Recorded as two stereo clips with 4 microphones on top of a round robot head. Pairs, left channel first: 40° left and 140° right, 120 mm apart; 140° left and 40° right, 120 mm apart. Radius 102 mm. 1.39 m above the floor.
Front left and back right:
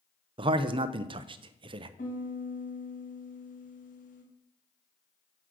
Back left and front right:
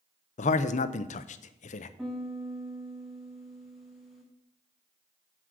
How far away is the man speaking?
About 0.5 m.